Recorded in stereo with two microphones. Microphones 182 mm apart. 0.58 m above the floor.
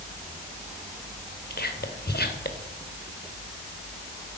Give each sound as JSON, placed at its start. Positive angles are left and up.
{"t": 1.5, "sound": "whispering", "side_deg": 65, "distance_m": 2.0}